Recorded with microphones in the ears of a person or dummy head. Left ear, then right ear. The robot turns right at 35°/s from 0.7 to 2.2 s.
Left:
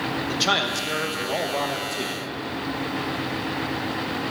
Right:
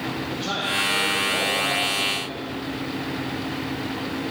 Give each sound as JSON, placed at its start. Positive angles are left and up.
{"t": 0.3, "sound": "a man speaking", "azimuth_deg": 70, "distance_m": 1.2}